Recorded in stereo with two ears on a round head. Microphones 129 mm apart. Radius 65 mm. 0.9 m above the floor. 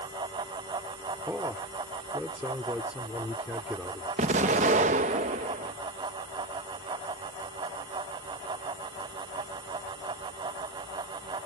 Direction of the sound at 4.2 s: 50° right (ahead or behind).